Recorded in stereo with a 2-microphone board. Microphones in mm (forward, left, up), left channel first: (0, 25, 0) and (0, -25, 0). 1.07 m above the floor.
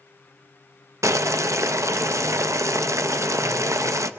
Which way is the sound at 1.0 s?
80° right.